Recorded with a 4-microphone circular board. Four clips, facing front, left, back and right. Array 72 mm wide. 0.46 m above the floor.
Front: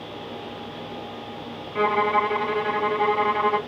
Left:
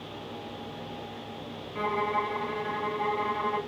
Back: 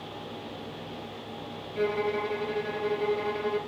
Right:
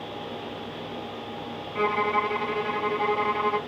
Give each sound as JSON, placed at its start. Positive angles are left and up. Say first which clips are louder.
{"t": 1.8, "sound": "a violin", "louder": "right 4 dB, front 7 dB", "azimuth_deg": -20, "distance_m": 0.7}